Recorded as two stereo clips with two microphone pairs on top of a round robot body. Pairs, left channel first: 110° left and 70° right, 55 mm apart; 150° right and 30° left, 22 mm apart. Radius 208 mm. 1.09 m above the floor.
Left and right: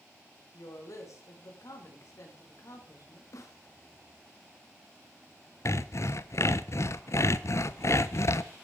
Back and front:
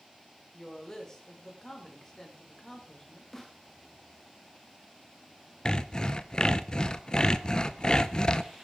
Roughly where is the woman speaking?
Behind left.